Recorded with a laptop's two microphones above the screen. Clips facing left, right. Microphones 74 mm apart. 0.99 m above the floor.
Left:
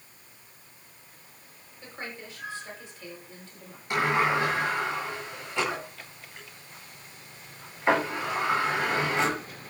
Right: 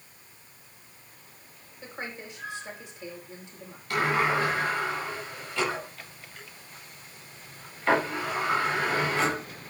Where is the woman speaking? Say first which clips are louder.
Right 2 dB; 20° right (ahead or behind), 6 m.